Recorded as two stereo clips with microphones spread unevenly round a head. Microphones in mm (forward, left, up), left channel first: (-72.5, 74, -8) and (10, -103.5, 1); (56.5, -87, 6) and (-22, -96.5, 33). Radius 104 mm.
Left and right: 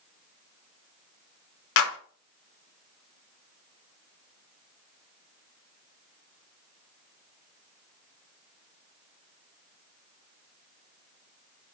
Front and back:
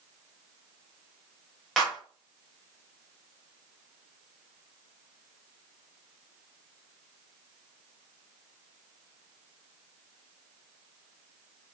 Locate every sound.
1.8 s a clap: 90° left, 1.3 m